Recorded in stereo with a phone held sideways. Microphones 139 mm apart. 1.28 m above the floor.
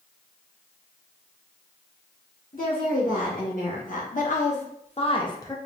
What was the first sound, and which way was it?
A woman speaking, 75° left (ahead or behind).